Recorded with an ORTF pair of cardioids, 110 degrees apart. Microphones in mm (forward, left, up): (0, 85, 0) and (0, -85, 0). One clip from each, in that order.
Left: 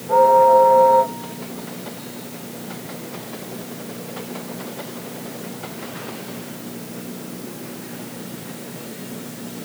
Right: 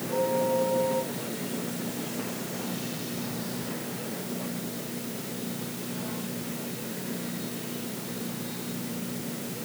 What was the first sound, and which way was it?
Only background noise.